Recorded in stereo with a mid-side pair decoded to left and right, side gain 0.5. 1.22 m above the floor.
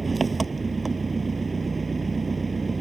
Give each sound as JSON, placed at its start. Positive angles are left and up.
{"t": 0.0, "sound": "an engine running", "azimuth_deg": -25}